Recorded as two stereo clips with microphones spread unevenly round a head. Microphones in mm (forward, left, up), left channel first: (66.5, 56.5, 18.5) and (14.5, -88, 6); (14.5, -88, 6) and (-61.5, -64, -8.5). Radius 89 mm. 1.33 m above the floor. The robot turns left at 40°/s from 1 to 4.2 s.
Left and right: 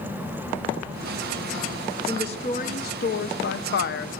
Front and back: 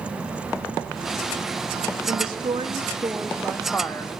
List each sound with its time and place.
2.1 s a woman speaking: 135° left, 0.8 m; by 4.1 s 55° left, 0.8 m